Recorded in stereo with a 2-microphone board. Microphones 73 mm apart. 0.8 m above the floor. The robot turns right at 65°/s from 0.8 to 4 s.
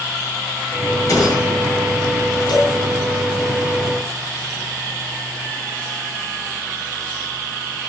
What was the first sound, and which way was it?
A gunshot, 50° left.